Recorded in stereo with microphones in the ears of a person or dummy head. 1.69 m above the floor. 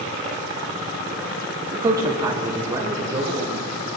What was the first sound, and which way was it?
A man speaking, 25° right (ahead or behind).